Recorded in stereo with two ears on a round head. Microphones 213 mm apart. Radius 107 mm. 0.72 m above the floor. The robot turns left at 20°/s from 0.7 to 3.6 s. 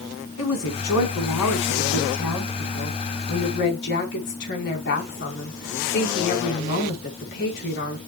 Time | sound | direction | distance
0.4 | a woman speaking | 105° left | 5 m